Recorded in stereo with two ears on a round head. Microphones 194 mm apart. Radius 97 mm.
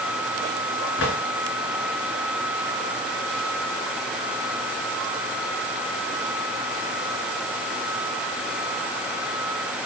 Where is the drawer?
75° left (ahead or behind), 2 m.